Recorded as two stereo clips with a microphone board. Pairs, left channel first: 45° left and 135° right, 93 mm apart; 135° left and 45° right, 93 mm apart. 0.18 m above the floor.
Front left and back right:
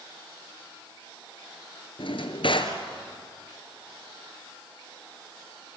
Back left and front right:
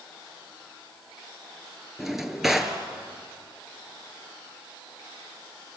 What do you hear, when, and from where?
2.0 s a drawer: 40° left, 2 m